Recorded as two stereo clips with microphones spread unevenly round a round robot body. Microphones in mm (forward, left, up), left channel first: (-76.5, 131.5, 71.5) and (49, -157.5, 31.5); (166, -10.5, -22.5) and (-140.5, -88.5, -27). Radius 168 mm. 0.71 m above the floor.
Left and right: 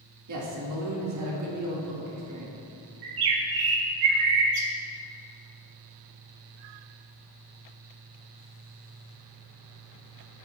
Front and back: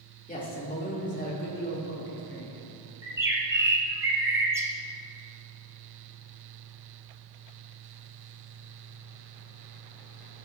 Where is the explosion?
I don't hear an explosion.